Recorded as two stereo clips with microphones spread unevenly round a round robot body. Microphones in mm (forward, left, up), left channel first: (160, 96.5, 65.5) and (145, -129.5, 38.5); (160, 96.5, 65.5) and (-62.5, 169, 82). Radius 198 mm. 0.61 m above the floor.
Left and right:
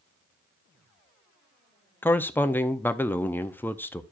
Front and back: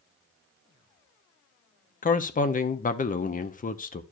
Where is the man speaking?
Straight ahead, 0.7 m.